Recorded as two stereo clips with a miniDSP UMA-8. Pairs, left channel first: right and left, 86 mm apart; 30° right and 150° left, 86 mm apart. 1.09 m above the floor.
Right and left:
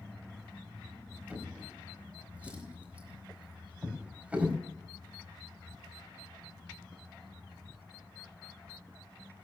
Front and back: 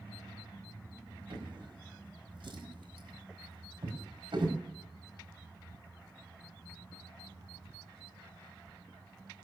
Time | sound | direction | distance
1.3 | a drawer | 165° left | 4 m